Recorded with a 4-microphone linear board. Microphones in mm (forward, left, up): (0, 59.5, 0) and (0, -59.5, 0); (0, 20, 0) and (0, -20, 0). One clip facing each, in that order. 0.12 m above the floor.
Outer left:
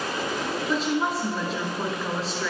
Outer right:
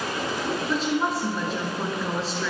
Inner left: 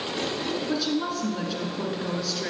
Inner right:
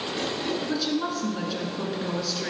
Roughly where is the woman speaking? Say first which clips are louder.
Outer left 1 dB, inner left 2 dB; centre.